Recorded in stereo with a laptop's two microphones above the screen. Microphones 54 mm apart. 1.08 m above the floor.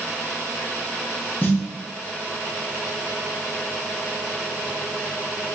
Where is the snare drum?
35° left (ahead or behind), 0.8 m.